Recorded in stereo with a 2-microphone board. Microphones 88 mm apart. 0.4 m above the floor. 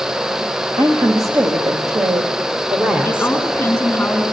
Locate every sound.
0.8 s a woman speaking: 50° right (ahead or behind), 2.5 m; by 3.4 s 10° right (ahead or behind), 1.7 m
3.0 s a woman speaking: 15° left (ahead or behind), 5 m